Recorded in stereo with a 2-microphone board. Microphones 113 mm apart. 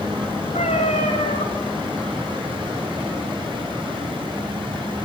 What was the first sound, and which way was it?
A cat meowing, 85° left.